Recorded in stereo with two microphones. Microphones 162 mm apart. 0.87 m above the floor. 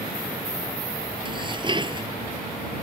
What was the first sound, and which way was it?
Dishes clattering, 30° right (ahead or behind).